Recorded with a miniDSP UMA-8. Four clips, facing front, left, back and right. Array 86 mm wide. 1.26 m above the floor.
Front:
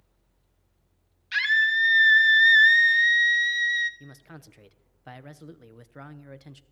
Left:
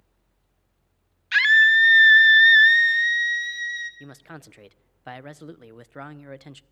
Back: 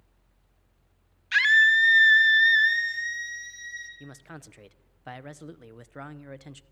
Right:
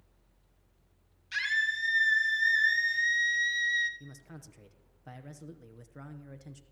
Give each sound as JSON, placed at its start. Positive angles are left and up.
{"t": 1.3, "sound": "a scream", "azimuth_deg": 110, "distance_m": 1.5}
{"t": 4.0, "sound": "a man speaking", "azimuth_deg": 110, "distance_m": 0.7}